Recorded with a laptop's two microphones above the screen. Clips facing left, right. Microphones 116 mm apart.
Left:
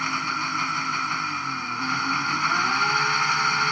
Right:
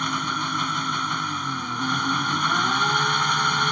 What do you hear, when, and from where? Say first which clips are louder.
0.0 s an engine running: right 2 dB; 10° right (ahead or behind)